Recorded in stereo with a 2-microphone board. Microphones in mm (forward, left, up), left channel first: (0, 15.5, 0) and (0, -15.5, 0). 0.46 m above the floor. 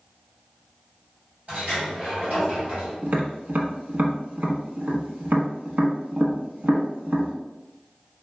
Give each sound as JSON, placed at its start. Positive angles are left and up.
{"t": 1.5, "sound": "a sliding door", "side_deg": -55, "distance_m": 1.9}
{"t": 3.0, "sound": "tapping", "side_deg": -75, "distance_m": 0.8}